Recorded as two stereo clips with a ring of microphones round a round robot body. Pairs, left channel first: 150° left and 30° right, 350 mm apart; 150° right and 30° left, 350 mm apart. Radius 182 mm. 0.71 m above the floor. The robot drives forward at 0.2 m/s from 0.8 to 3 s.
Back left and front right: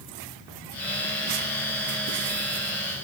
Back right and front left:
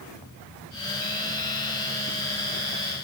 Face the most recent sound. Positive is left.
No sound to turn to.